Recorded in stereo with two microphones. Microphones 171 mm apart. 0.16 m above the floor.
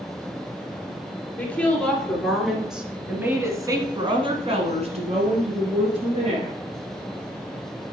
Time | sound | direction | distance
1.4 | a woman speaking | 10° left (ahead or behind) | 2.5 m